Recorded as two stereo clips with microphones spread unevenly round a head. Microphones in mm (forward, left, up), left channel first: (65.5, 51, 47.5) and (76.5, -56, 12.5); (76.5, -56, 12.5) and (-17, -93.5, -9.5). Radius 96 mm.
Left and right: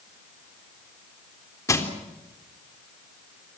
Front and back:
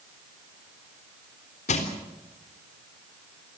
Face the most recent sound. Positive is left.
turn(degrees=30)